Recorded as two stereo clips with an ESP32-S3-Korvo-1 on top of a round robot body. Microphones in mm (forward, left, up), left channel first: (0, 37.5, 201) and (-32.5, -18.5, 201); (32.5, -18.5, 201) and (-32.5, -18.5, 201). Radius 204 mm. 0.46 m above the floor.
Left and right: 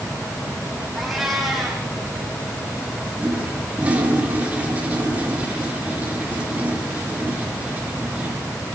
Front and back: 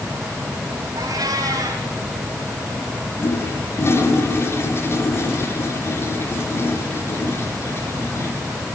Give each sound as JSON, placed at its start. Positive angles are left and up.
{"t": 1.0, "sound": "a cat meowing", "azimuth_deg": 150, "distance_m": 8.0}
{"t": 3.2, "sound": "a toilet flushing", "azimuth_deg": -50, "distance_m": 4.5}